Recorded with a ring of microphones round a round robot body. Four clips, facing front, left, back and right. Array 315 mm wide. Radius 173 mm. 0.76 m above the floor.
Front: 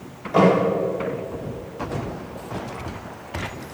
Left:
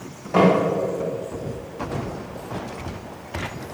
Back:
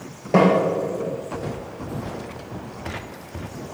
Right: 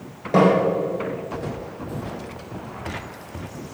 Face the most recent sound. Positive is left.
turn(degrees=-145)